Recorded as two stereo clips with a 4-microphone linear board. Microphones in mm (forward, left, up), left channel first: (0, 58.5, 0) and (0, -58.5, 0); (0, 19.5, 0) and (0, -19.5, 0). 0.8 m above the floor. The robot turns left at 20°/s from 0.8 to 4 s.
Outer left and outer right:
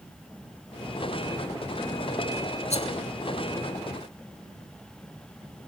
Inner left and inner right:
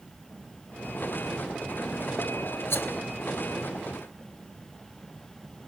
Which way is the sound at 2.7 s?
75° left (ahead or behind).